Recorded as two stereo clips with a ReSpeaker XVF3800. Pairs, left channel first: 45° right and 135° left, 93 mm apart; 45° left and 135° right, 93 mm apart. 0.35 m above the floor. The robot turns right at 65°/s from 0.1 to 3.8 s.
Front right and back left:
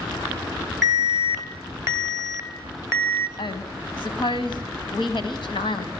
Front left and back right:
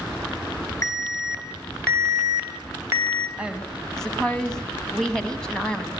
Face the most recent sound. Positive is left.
turn(degrees=-35)